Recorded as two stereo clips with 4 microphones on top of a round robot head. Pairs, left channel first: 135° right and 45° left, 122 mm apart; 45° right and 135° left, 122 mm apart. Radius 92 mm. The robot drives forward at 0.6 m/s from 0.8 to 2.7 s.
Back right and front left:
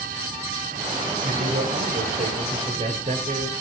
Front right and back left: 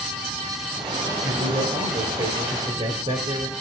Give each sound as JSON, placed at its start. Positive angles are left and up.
{"t": 1.2, "sound": "a man speaking", "azimuth_deg": 70, "distance_m": 3.5}